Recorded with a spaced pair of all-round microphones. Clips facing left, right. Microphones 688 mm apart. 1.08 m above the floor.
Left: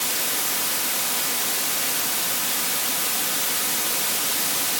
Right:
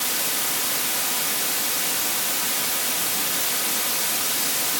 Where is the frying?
No frying in this recording.